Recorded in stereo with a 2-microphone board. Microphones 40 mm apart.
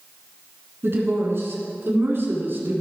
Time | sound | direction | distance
0.8 | a woman speaking | 75° right (ahead or behind) | 4 m